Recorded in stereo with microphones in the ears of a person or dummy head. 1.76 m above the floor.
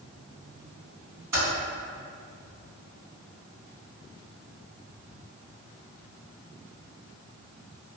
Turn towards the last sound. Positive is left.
turn(degrees=-25)  # may be behind; listen again after turning